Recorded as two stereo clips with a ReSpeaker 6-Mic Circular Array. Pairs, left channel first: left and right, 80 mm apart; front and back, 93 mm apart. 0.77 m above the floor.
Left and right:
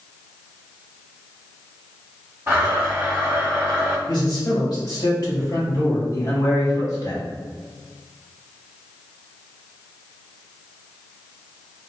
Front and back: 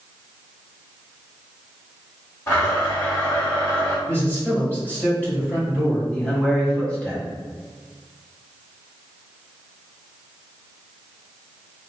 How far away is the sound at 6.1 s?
About 1.1 m.